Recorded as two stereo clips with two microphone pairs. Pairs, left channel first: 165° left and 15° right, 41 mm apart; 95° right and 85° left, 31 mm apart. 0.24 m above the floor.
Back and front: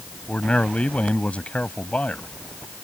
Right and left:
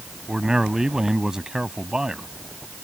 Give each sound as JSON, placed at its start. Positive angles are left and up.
{"t": 0.3, "sound": "a man speaking", "azimuth_deg": 135}